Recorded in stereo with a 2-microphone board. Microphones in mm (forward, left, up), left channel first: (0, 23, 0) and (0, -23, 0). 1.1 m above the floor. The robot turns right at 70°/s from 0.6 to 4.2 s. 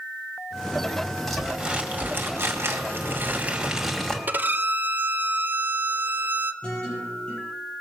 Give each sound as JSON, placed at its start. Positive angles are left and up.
{"t": 1.3, "sound": "crumpling", "azimuth_deg": 170, "distance_m": 1.9}
{"t": 4.3, "sound": "a violin", "side_deg": -45, "distance_m": 0.5}
{"t": 6.6, "sound": "a guitar", "side_deg": 20, "distance_m": 7.0}